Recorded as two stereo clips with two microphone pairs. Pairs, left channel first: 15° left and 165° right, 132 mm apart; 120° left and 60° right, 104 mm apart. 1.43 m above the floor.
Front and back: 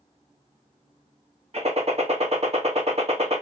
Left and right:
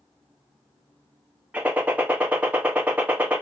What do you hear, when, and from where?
1.5 s a gunshot: 135° right, 0.9 m